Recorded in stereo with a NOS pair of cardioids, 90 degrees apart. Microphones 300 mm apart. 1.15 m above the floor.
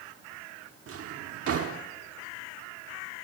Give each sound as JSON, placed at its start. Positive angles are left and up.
{"t": 0.9, "sound": "a drawer", "azimuth_deg": -50, "distance_m": 1.5}